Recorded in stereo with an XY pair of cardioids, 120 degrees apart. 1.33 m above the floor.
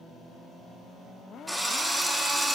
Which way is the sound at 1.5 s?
Straight ahead.